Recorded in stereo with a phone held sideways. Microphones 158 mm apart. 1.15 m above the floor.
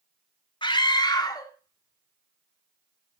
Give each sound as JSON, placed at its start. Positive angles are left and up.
{"t": 0.6, "sound": "a scream", "side_deg": 30, "distance_m": 1.9}